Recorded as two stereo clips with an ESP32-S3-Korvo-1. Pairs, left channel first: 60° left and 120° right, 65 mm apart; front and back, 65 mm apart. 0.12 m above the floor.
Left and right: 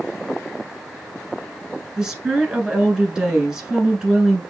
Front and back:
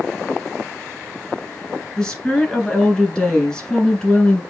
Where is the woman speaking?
55° right, 1.1 m.